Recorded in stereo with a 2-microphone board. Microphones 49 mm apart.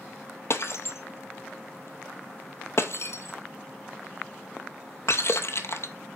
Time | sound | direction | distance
0.5 | breaking glass | 60° left (ahead or behind) | 0.9 m